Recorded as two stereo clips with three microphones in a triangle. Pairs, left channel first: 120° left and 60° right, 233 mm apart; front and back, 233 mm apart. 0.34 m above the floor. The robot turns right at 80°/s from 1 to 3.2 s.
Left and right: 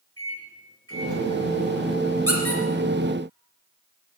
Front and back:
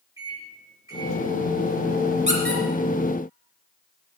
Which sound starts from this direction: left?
A microwave, at 0.2 s.